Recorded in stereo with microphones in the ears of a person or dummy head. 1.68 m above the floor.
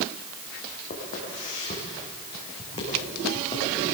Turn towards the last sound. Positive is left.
turn(degrees=25)  # may be behind; listen again after turning